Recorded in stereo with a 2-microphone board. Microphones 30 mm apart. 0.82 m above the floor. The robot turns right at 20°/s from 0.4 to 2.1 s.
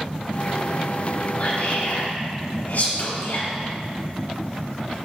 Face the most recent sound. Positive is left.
turn(degrees=65)  # may be behind; listen again after turning